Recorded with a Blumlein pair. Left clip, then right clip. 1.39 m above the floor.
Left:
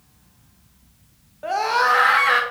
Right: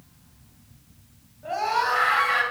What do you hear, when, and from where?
1.4 s a scream: 35° left, 1.8 m